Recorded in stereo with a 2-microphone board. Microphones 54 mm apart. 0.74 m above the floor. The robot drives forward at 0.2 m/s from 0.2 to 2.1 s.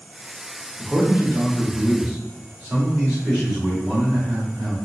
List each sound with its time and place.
0.8 s a man speaking: 10° right (ahead or behind), 1.6 m